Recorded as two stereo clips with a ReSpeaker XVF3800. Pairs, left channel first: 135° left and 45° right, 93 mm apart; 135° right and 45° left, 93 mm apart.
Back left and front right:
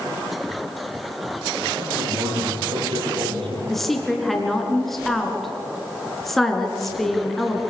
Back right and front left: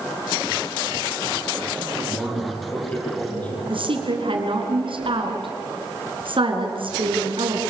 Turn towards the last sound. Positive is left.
turn(degrees=50)